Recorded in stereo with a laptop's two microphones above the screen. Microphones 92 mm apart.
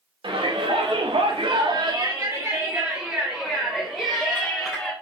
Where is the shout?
70° right (ahead or behind), 2.5 m; by 4.9 s 5° left (ahead or behind), 5 m.